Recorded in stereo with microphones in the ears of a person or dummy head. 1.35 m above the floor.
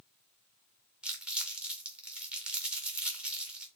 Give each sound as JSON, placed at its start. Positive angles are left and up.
{"t": 1.0, "sound": "crumpling", "side_deg": -10, "distance_m": 0.5}